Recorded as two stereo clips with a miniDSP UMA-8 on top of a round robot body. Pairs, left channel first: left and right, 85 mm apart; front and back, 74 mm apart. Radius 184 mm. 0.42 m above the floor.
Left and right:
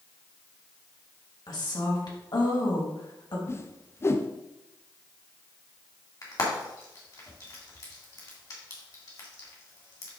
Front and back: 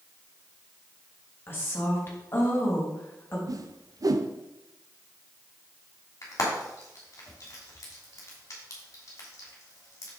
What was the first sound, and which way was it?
A woman speaking, 55° left.